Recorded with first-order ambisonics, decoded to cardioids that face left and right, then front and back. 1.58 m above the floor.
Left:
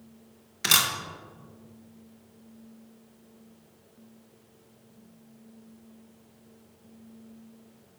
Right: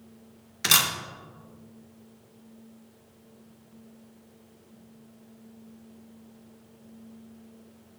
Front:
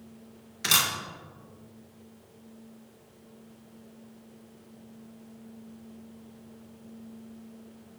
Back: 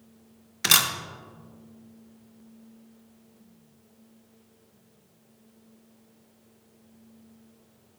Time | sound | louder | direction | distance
0.6 | a camera shutter | right 1 dB, back 3 dB | 165° right | 0.7 m